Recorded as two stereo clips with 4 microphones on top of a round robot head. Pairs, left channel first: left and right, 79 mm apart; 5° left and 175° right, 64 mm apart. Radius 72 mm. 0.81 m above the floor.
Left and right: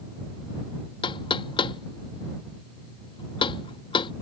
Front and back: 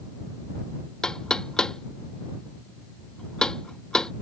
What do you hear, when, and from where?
1.0 s knocking: 85° left